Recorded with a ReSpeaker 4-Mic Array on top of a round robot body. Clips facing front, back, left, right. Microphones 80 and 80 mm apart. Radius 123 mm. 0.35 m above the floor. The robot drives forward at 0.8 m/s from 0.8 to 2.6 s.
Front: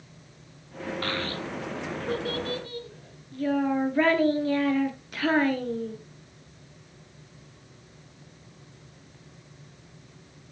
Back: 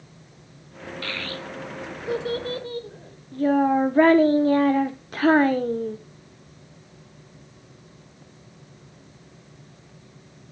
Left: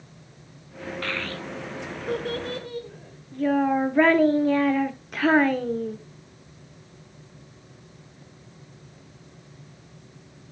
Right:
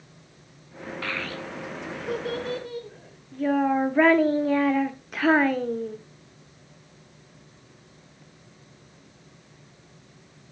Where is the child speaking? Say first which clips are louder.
Even, even; 5° right, 1.0 m; by 6.0 s 175° right, 1.0 m.